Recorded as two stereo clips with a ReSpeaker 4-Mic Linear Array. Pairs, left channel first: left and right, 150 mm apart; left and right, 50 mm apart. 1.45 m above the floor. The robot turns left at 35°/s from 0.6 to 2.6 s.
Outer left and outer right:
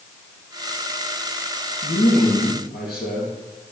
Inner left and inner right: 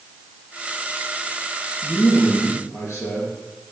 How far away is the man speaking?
About 2.5 m.